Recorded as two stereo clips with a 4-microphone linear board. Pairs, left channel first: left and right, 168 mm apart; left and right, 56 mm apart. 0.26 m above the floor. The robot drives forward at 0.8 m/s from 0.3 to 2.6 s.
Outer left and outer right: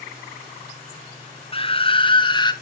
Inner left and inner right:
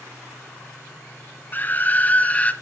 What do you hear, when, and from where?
1.5 s a scream: 35° left (ahead or behind), 1.2 m; by 2.5 s 25° left (ahead or behind), 1.5 m